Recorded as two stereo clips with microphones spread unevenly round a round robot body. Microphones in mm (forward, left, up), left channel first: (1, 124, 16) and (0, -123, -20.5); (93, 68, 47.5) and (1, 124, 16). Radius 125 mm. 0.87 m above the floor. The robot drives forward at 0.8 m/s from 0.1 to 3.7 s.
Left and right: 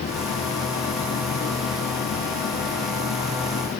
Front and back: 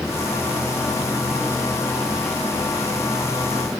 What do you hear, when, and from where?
Only background noise.